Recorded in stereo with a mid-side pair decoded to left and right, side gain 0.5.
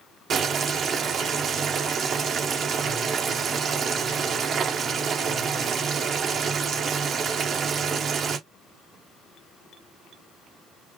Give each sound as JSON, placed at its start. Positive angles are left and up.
{"t": 0.3, "sound": "boiling", "azimuth_deg": -55, "distance_m": 1.5}